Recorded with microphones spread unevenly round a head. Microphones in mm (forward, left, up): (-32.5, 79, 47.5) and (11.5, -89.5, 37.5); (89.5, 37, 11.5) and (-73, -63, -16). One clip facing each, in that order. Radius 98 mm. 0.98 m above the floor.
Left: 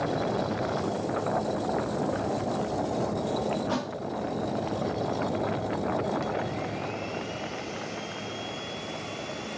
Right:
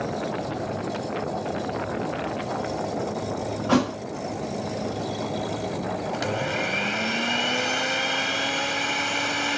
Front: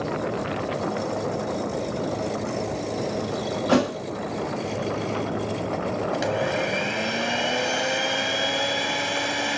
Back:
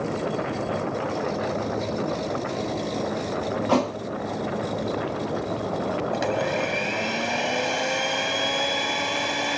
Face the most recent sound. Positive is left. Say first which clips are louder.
# right 3 dB, front 1 dB
turn(degrees=-55)